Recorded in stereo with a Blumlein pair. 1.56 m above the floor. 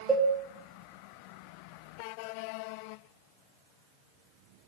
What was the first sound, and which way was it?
A cowbell, 5° right.